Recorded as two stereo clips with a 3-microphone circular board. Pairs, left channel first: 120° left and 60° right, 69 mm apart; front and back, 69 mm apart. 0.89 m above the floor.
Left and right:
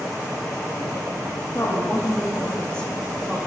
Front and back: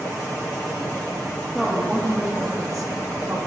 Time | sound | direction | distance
1.5 | a woman speaking | 90° left | 1.2 m